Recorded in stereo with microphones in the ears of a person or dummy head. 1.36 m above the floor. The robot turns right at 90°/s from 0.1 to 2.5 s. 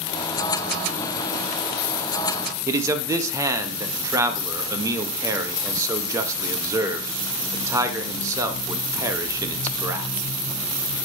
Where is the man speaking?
15° right (ahead or behind), 0.7 m.